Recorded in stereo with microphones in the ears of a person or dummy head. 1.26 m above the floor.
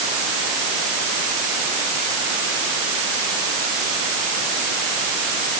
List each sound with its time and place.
Only background noise.